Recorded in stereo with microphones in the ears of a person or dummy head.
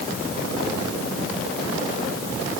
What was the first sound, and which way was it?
Only background noise.